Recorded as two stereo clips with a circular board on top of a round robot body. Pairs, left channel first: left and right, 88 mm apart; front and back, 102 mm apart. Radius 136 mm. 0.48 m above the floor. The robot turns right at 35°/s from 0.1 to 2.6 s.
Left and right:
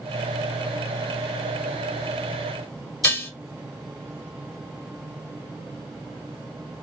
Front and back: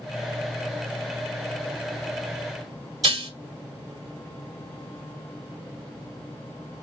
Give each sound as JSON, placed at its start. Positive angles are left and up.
{"t": 3.0, "sound": "dishes clattering", "azimuth_deg": 150, "distance_m": 1.4}